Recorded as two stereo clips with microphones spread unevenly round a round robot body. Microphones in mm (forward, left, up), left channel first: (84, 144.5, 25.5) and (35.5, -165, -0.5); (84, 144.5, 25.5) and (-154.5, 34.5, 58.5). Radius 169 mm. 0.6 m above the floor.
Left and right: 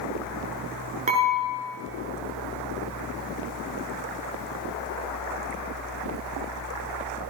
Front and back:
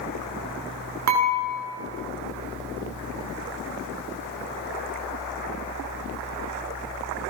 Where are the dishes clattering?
170° right, 5.5 m.